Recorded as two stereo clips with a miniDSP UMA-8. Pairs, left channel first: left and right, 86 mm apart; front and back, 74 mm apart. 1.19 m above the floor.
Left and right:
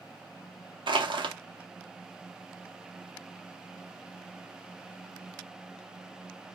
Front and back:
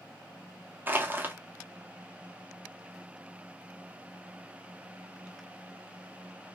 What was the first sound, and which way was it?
Crushing, 115° right.